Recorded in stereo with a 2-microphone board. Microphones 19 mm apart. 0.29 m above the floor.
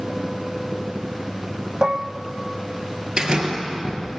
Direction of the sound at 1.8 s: 50° right (ahead or behind).